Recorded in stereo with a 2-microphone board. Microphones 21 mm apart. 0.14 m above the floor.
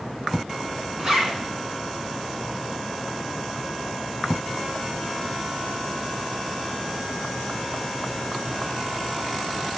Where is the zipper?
20° right (ahead or behind), 1.3 m.